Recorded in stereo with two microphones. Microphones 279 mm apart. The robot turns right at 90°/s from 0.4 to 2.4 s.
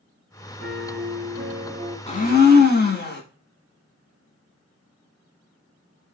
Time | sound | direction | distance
0.6 | a piano | 140° right | 1.3 m
2.1 | a blender | 35° left | 0.7 m